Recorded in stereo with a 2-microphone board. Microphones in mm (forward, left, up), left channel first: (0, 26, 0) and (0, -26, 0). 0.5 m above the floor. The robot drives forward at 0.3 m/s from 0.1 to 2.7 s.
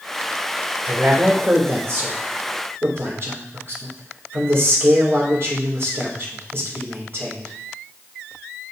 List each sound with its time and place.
0.8 s a man speaking: 55° right (ahead or behind), 2 m